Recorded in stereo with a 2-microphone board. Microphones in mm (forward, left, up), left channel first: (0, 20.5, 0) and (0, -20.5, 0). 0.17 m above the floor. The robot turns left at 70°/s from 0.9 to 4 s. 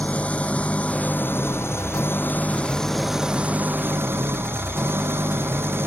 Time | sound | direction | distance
0.0 | an engine running | 150° left | ?